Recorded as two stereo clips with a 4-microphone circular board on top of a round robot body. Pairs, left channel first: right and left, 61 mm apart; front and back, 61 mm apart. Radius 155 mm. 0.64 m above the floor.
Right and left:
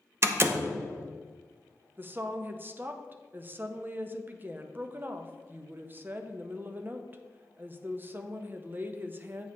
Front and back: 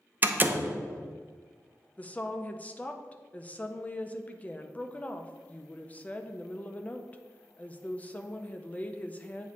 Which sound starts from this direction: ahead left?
A woman speaking, at 2.0 s.